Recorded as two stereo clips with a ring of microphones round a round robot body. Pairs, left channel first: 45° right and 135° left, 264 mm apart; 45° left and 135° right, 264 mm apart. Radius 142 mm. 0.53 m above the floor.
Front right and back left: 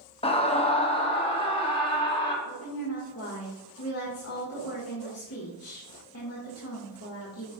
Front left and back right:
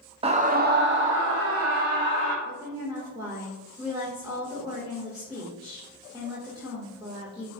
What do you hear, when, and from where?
0.2 s a scream: 90° right, 0.7 m; by 2.4 s 115° right, 1.6 m
2.5 s a woman speaking: 65° right, 1.7 m